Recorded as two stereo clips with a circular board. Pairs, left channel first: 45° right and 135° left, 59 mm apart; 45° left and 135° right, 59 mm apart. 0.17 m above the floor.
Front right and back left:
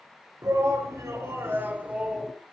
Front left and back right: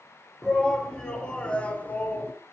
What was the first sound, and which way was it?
A shout, 125° left.